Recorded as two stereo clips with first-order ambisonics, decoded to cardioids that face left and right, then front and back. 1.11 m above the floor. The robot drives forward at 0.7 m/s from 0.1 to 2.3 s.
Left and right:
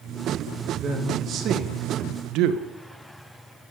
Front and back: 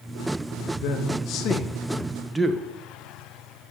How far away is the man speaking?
About 1.2 m.